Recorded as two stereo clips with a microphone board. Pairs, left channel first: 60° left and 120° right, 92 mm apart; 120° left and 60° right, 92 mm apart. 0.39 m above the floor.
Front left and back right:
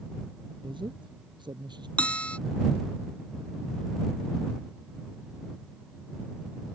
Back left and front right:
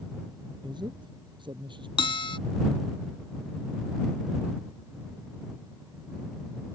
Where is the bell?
135° left.